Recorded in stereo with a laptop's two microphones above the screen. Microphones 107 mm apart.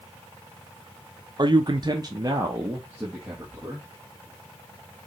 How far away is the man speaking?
About 0.6 m.